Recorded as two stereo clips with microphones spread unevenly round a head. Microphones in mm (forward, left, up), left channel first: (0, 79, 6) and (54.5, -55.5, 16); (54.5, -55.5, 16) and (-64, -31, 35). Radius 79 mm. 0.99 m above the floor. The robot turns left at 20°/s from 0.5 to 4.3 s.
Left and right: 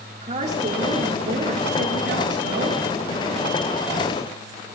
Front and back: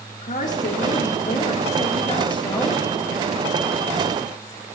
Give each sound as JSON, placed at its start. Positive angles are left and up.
{"t": 0.2, "sound": "a woman speaking", "azimuth_deg": -25, "distance_m": 3.0}